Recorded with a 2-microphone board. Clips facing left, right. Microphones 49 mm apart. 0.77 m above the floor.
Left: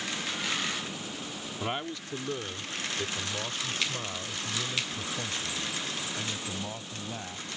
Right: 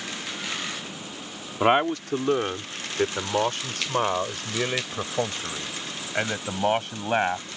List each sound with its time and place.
1.6 s a man speaking: 60° right (ahead or behind); by 7.5 s 80° right